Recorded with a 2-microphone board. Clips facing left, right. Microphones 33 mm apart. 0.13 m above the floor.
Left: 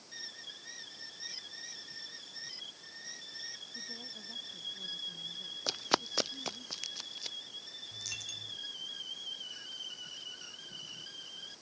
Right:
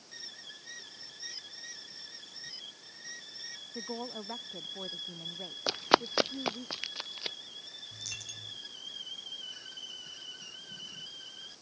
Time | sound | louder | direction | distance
3.8 | a woman speaking | right 7 dB | 60° right (ahead or behind) | ?
5.7 | running footsteps | right 6 dB | 20° right (ahead or behind) | ?
7.9 | a dropped coin | left 2 dB | centre (ahead or behind) | ?